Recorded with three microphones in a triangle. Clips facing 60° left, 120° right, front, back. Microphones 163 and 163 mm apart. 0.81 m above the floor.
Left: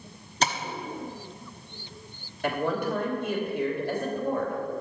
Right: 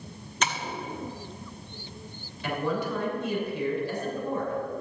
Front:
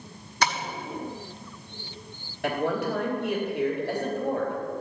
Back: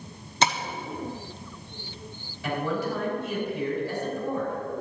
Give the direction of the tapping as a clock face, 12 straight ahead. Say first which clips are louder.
Left 3 dB, back 2 dB; 8 o'clock.